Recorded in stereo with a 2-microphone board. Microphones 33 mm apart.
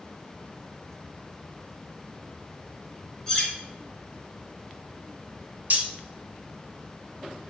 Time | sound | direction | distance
3.3 | cutlery clinking | 15° left (ahead or behind) | 1.5 m
5.7 | cutlery clinking | 50° right (ahead or behind) | 0.7 m